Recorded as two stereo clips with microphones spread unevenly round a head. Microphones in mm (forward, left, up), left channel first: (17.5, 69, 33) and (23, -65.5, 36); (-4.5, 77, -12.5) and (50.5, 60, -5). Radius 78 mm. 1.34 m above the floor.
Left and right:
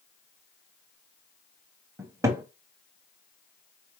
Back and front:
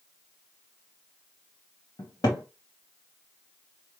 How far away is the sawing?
I don't hear sawing.